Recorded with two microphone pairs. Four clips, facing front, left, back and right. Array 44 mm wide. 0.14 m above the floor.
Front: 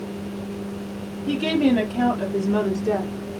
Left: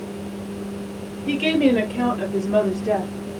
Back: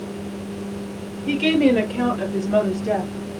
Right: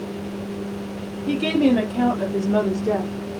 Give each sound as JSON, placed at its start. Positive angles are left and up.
{"t": 1.3, "sound": "a woman speaking", "azimuth_deg": 130, "distance_m": 3.0}